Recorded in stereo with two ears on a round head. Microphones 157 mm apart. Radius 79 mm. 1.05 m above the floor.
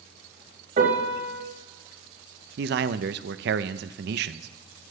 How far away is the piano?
About 3.5 m.